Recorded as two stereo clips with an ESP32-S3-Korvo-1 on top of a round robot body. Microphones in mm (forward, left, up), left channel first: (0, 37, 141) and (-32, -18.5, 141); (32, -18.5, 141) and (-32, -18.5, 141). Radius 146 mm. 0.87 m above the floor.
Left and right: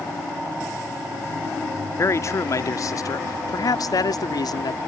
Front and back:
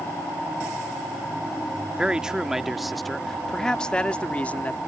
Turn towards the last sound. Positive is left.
turn(degrees=65)